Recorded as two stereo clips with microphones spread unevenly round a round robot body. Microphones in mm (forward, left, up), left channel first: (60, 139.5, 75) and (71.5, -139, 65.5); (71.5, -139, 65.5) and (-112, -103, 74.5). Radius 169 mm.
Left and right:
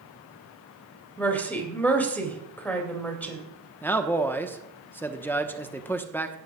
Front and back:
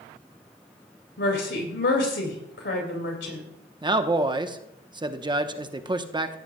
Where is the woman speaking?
10° left, 3.5 m.